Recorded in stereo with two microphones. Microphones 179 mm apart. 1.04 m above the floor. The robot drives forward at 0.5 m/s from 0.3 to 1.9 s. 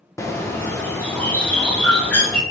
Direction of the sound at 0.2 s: 15° left (ahead or behind).